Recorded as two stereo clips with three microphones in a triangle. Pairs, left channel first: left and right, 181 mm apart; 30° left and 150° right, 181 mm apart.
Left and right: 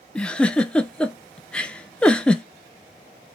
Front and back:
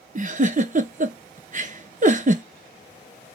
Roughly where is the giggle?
Behind.